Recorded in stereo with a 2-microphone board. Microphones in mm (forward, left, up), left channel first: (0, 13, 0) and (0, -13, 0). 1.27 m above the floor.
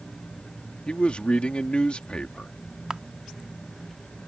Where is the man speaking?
45° left (ahead or behind).